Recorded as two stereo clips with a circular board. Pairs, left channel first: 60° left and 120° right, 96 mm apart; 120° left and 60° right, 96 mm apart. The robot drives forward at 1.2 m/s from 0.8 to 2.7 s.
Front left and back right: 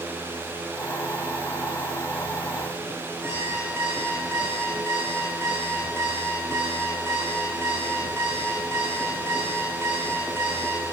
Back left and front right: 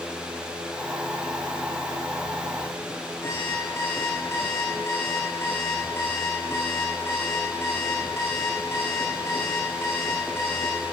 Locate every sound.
3.2 s an alarm clock: straight behind, 7 m